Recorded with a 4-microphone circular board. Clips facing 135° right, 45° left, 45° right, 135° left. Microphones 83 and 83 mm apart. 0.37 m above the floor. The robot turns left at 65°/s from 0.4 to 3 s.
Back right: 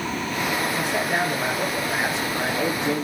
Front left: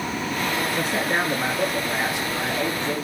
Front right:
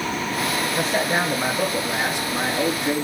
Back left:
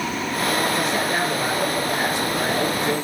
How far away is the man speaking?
About 4.5 m.